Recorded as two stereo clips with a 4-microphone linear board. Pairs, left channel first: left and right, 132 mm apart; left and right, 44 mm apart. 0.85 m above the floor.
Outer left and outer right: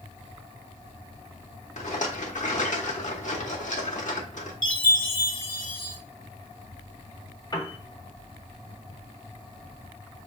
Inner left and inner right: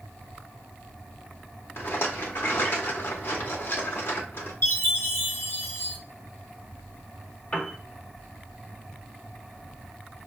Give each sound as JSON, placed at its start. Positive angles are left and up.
{"t": 1.8, "sound": "a rattle", "side_deg": 65, "distance_m": 0.9}
{"t": 4.6, "sound": "a chime", "side_deg": 80, "distance_m": 0.9}
{"t": 7.5, "sound": "a piano", "side_deg": 30, "distance_m": 0.8}